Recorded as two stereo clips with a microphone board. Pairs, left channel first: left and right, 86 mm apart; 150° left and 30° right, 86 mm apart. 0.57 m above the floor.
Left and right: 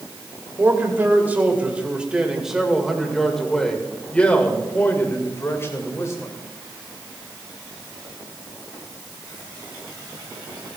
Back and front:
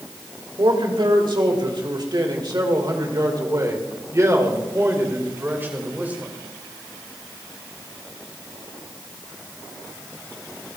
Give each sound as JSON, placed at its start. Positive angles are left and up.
{"t": 0.6, "sound": "a man speaking", "azimuth_deg": -30, "distance_m": 3.0}